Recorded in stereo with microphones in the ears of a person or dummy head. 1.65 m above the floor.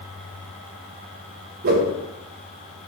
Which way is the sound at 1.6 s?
45° right (ahead or behind).